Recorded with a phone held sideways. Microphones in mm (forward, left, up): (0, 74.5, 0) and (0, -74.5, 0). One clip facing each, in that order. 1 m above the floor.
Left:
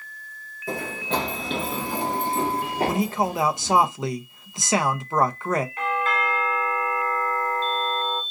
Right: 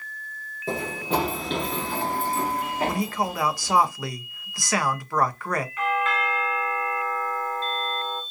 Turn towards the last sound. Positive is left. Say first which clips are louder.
# even
turn(degrees=35)  # may be behind; listen again after turning